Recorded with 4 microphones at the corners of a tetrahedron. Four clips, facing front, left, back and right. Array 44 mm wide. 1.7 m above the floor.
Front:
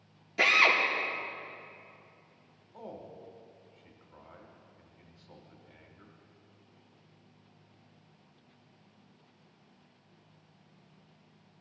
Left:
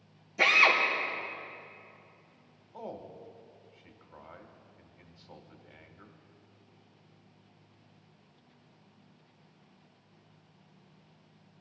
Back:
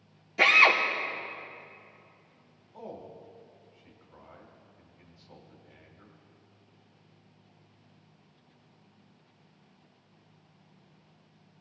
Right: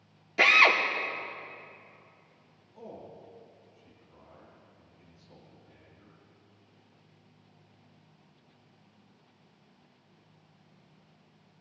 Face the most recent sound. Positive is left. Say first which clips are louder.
# left 3 dB, back 2 dB
turn(degrees=80)